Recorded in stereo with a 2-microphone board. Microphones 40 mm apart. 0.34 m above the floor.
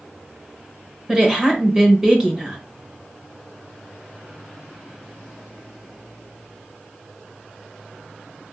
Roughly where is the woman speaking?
Centre.